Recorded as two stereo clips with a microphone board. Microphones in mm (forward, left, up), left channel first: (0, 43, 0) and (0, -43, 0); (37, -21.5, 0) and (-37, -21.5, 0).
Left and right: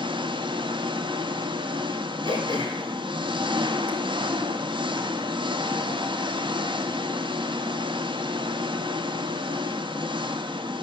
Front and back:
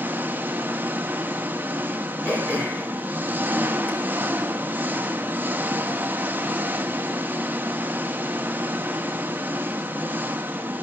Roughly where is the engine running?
Right.